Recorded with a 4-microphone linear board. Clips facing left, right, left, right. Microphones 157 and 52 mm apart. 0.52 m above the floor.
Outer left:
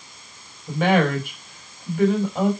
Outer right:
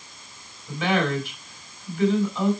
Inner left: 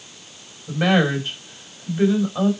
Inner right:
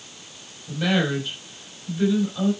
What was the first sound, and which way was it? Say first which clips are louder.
A woman speaking: outer left 4 dB, inner left 4 dB; 50° left (ahead or behind).